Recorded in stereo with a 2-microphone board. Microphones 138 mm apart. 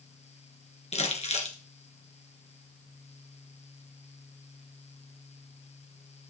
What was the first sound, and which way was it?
Crumpling, 50° left (ahead or behind).